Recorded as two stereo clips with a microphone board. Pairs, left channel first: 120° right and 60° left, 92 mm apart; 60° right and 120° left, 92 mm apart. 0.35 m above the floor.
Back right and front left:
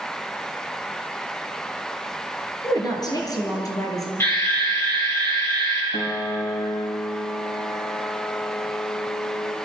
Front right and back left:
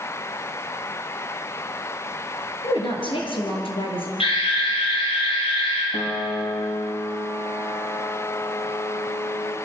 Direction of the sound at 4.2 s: 60° right.